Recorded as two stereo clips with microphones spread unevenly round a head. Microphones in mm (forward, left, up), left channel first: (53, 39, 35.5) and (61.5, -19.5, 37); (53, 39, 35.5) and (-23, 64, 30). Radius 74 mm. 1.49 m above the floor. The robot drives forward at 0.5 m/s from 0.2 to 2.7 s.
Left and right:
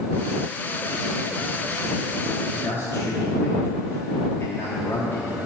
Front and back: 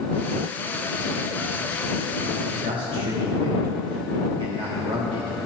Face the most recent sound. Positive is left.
turn(degrees=155)